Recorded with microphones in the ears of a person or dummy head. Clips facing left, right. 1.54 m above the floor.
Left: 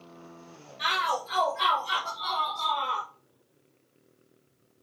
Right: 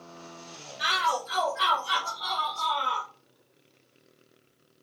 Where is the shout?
Centre (ahead or behind), 3.5 m.